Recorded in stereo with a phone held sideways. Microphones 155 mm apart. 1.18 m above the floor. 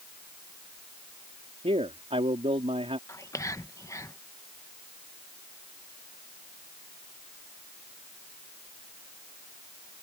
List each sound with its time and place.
1.6 s a man speaking: 40° right (ahead or behind)
3.1 s whispering: 20° left (ahead or behind)